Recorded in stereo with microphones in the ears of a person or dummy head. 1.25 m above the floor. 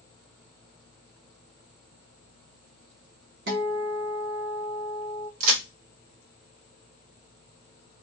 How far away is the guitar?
About 1.6 m.